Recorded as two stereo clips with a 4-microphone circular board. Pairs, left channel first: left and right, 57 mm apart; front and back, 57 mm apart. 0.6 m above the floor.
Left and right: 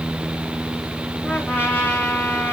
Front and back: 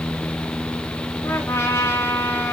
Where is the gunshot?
No gunshot in this recording.